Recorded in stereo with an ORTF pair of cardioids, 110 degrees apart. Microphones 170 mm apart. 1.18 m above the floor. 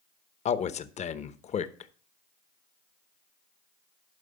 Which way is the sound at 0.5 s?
40° left.